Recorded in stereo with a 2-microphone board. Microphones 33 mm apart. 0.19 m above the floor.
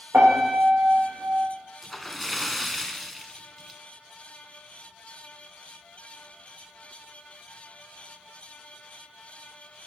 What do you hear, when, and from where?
0.1 s a piano: 75° right (ahead or behind), 5.5 m
1.8 s a splash: 5° left (ahead or behind), 0.6 m